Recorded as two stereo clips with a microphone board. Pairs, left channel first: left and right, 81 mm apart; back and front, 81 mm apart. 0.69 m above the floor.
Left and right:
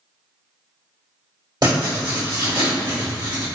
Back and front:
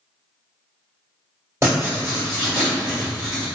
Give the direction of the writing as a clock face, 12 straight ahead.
2 o'clock.